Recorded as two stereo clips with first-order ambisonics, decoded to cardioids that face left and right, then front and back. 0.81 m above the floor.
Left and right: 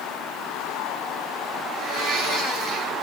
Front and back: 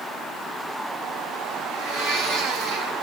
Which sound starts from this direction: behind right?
A blender, at 1.7 s.